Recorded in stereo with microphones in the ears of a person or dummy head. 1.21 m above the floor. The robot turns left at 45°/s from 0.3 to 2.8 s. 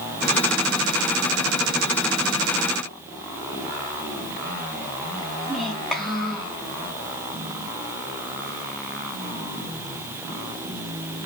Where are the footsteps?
I don't hear footsteps.